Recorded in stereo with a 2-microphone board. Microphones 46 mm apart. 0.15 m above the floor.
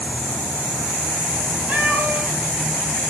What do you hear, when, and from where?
1.7 s a cat meowing: 30° right (ahead or behind), 9 m